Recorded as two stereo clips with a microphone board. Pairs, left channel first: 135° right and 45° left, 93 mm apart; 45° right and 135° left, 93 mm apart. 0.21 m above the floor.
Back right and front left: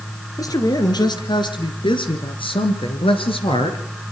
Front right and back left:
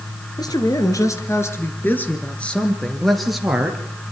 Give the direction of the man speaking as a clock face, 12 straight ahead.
3 o'clock.